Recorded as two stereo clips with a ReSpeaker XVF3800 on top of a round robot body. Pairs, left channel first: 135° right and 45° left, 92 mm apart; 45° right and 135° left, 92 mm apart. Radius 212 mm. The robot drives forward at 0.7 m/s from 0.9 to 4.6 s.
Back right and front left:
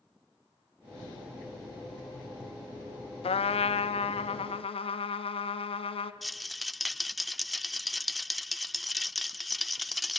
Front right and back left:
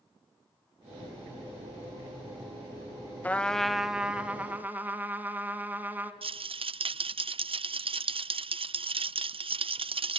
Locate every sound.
3.2 s a trumpet: 120° right, 0.8 m; by 6.1 s 155° right, 1.5 m
6.2 s a rattle: 135° left, 0.6 m